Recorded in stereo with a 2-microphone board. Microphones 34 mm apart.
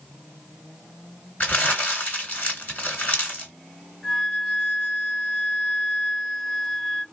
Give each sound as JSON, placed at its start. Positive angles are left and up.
{"t": 1.4, "sound": "crumpling", "side_deg": 50, "distance_m": 2.0}
{"t": 4.0, "sound": "a flute", "side_deg": -5, "distance_m": 1.5}